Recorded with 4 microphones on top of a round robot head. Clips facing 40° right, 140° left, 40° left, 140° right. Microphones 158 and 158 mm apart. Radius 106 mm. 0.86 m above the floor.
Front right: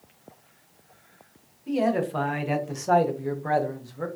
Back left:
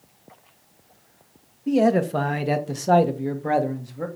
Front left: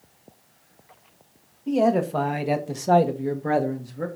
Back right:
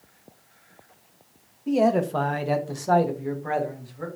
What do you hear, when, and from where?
1.7 s a man speaking: 135° left, 1.3 m; by 4.1 s 65° left, 1.5 m